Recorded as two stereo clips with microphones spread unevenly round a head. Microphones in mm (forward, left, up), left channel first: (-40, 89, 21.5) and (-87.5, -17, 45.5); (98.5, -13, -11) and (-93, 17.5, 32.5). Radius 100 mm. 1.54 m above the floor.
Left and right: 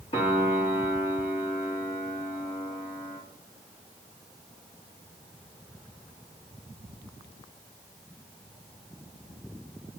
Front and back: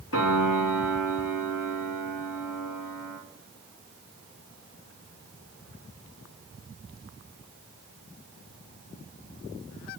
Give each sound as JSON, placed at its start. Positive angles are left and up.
{"t": 0.1, "sound": "a piano", "azimuth_deg": 10, "distance_m": 3.0}